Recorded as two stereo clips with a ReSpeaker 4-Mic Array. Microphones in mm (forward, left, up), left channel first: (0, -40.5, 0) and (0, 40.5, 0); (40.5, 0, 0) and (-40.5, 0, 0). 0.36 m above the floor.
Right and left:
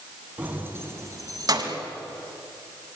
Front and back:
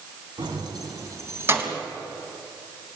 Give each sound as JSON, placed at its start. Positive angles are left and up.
{"t": 0.4, "sound": "keys jangling", "azimuth_deg": 160, "distance_m": 2.5}